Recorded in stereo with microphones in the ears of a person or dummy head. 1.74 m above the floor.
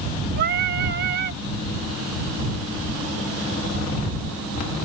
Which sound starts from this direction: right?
Singing, at 0.4 s.